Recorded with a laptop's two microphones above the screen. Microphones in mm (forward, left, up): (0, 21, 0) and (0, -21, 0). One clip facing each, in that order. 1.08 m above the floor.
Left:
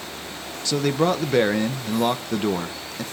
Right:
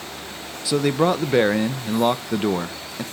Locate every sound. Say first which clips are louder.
0.7 s a man speaking: right 2 dB; 10° right (ahead or behind), 0.6 m